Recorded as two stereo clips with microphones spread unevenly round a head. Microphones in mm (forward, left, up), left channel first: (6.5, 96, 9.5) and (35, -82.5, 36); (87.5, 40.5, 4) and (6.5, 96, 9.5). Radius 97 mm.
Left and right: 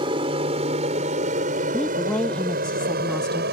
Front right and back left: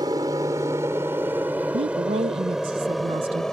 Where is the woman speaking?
Straight behind.